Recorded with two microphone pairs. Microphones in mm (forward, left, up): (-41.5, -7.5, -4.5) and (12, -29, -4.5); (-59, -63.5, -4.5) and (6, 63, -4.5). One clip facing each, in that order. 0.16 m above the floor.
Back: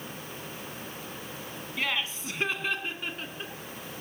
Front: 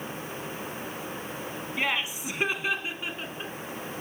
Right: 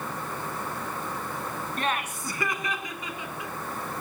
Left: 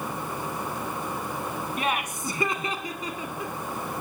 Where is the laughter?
10° right, 1.0 m; by 3.5 s 65° left, 1.4 m.